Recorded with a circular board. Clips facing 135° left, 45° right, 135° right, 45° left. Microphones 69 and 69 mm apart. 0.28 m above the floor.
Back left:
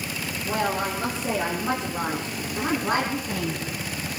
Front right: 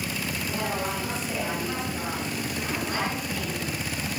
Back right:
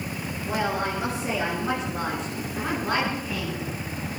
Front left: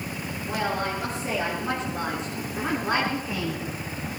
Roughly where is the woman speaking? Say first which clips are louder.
Back left 6 dB, back right 1 dB; behind left.